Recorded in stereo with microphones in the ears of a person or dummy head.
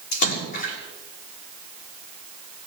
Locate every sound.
0.1 s a splash: 60° left (ahead or behind), 6.5 m